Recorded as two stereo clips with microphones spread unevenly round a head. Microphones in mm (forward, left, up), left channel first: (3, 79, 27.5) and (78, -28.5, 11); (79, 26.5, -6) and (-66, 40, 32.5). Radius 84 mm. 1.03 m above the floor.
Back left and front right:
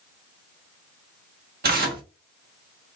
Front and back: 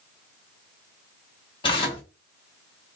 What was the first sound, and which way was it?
Tearing paper, 75° right.